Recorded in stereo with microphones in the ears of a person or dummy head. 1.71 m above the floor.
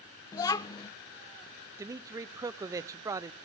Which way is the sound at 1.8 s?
15° right (ahead or behind).